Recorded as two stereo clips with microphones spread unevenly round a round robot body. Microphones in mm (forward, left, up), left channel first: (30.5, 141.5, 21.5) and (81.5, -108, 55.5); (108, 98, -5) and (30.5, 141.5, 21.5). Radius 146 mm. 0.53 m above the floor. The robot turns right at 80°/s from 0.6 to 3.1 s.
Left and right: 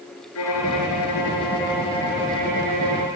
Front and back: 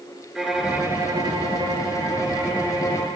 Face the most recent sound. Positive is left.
turn(degrees=-90)